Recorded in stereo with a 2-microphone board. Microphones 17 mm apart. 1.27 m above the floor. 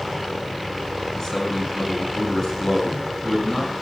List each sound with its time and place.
1.2 s a man speaking: 35° left (ahead or behind), 7.5 m